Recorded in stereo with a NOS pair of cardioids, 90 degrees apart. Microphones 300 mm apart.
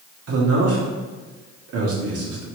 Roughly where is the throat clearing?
No throat clearing in this recording.